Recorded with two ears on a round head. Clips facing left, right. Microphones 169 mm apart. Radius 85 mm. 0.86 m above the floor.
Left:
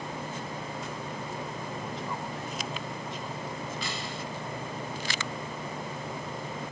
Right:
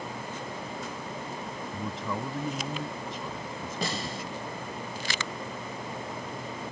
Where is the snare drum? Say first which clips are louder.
Right 3 dB; 35° right (ahead or behind).